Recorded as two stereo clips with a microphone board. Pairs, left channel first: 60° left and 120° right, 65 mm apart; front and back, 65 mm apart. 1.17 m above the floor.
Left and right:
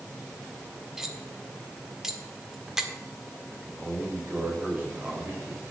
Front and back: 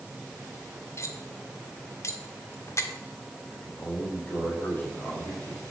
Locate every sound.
1.0 s cutlery clinking: 40° right, 1.6 m
3.5 s a man speaking: 60° right, 6 m